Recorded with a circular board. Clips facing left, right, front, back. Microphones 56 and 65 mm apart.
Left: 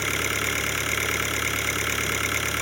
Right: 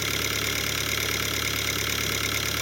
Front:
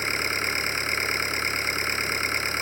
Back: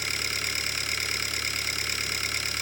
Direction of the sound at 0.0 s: 30° left.